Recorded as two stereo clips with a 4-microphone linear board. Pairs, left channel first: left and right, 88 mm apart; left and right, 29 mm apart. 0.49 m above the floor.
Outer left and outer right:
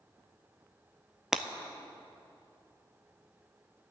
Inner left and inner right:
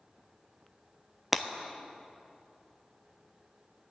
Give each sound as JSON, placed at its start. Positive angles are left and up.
{"t": 1.3, "sound": "breaking glass", "side_deg": -5, "distance_m": 0.6}